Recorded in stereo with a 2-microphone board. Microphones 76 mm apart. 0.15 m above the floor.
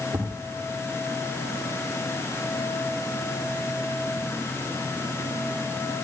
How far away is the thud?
About 9.5 m.